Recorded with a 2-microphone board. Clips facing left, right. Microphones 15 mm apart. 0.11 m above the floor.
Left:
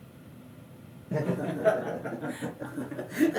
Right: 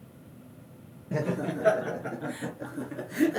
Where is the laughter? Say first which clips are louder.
Even; 40° right (ahead or behind), 2.5 m; by 3.4 s 10° left (ahead or behind), 1.6 m.